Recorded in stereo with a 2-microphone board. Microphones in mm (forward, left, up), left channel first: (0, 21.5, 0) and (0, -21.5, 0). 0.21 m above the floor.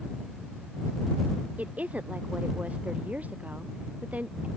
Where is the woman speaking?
40° right (ahead or behind).